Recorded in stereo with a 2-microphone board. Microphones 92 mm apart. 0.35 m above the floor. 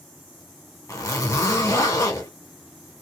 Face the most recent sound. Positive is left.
turn(degrees=35)  # may be behind; listen again after turning